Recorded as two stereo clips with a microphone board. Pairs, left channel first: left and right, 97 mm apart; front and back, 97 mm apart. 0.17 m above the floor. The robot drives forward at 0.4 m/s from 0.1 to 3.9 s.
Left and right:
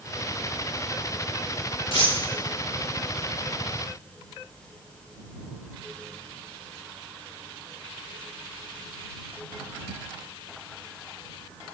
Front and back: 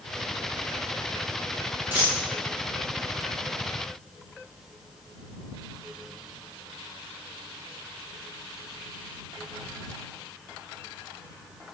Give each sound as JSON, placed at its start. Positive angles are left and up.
{"t": 1.9, "sound": "a dropped coin", "azimuth_deg": 115, "distance_m": 4.5}